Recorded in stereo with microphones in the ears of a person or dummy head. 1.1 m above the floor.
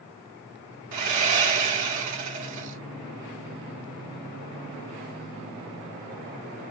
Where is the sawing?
75° right (ahead or behind), 1.9 m.